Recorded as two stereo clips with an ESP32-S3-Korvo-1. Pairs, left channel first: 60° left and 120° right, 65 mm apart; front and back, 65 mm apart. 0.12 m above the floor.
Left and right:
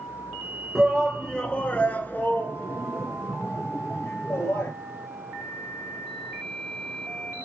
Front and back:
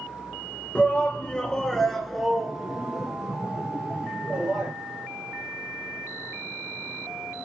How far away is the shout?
About 1.3 m.